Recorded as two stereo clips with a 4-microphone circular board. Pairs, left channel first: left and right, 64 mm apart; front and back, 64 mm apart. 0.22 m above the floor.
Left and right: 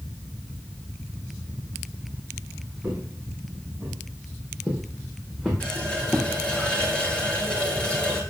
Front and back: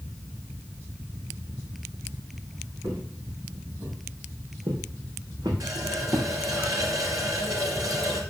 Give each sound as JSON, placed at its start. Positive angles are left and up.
{"t": 2.8, "sound": "footsteps", "azimuth_deg": -155, "distance_m": 4.0}
{"t": 5.6, "sound": "a running tap", "azimuth_deg": 160, "distance_m": 2.5}